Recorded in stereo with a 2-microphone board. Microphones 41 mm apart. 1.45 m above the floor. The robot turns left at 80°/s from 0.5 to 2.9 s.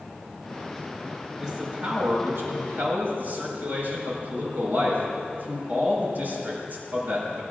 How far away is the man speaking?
About 5.5 m.